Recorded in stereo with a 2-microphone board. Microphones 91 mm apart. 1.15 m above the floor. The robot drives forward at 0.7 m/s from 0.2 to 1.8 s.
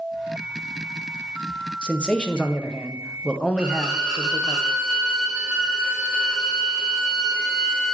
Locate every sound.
1.8 s a man speaking: 10° left (ahead or behind), 0.6 m
3.6 s a violin: 5° right (ahead or behind), 1.2 m